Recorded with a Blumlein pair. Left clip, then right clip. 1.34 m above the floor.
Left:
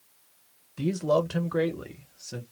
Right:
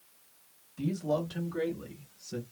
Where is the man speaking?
25° left, 1.1 m; by 2.4 s 70° left, 1.1 m.